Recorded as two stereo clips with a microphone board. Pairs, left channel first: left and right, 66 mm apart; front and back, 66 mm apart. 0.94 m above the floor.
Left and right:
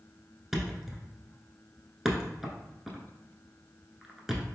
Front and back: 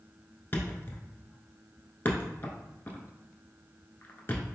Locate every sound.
0.5 s a thud: 5° right, 1.0 m